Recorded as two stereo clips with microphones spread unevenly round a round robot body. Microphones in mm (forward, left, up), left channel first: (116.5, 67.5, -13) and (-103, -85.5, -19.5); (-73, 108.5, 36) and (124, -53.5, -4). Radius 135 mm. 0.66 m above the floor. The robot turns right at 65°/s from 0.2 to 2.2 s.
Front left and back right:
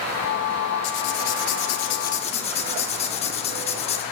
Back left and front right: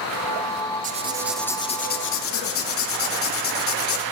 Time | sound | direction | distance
0.8 | writing | 15° left | 1.0 m